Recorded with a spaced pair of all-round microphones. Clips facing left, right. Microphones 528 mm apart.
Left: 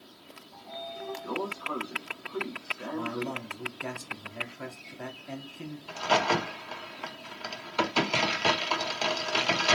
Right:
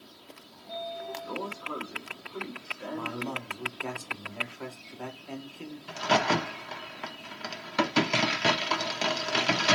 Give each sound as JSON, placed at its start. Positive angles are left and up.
{"t": 0.5, "sound": "a sliding door", "side_deg": 85, "distance_m": 1.1}
{"t": 2.9, "sound": "a man speaking", "side_deg": 45, "distance_m": 0.9}
{"t": 5.9, "sound": "a crack", "side_deg": -45, "distance_m": 0.8}